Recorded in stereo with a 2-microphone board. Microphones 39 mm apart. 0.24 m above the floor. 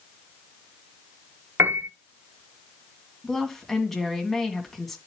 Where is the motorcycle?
No motorcycle in this recording.